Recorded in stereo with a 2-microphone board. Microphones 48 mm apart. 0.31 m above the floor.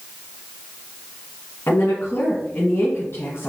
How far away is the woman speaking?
About 3 m.